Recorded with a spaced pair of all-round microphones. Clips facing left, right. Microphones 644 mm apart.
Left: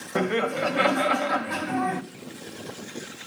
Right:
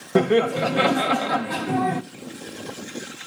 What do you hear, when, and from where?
0.1 s laughter: 60° right (ahead or behind), 0.8 m